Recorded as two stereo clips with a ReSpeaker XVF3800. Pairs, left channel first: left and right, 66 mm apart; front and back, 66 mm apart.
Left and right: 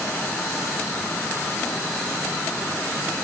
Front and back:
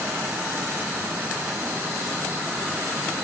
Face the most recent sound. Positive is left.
No sound to turn to.